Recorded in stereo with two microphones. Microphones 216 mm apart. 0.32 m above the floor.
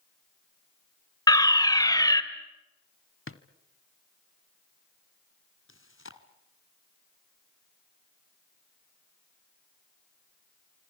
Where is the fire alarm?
15° left (ahead or behind), 1.9 m.